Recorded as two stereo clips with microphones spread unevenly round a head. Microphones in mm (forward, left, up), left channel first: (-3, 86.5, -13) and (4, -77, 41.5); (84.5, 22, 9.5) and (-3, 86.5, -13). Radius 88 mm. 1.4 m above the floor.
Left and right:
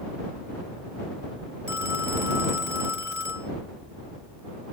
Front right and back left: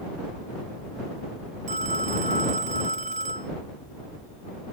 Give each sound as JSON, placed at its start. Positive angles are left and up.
{"t": 1.7, "sound": "a phone ringing", "azimuth_deg": -165}